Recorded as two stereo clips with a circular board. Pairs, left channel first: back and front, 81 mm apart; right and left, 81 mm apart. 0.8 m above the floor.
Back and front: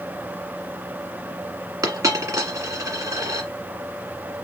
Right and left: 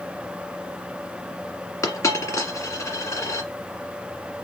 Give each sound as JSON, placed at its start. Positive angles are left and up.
{"t": 1.8, "sound": "a dropped coin", "azimuth_deg": -40, "distance_m": 1.7}